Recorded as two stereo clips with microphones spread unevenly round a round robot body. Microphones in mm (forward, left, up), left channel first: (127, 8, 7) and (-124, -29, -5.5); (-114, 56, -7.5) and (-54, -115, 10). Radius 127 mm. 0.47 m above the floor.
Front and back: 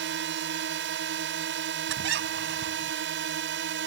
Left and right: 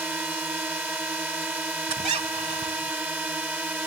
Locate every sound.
0.0 s a drone: 150° right
1.9 s a squeak: 125° right